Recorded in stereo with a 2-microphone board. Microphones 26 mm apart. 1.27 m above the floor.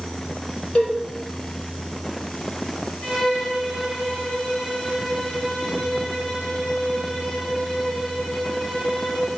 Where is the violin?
55° left (ahead or behind), 3.5 m.